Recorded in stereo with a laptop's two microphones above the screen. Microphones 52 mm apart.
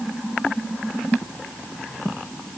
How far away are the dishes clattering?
No dishes clattering in this recording.